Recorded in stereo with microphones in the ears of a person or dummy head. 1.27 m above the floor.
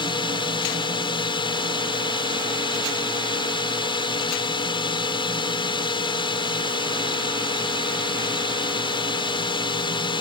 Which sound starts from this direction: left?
A drone, at 0.0 s.